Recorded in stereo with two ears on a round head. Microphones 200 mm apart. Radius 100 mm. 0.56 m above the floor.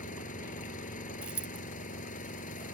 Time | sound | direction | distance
0.0 | an engine running | 35° left (ahead or behind) | ?
1.2 | a dropped coin | 5° right (ahead or behind) | ?